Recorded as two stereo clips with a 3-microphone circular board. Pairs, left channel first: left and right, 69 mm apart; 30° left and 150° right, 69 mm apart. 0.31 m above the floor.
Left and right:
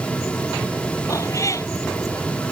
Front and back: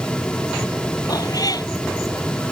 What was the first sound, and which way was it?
A cat meowing, 50° left.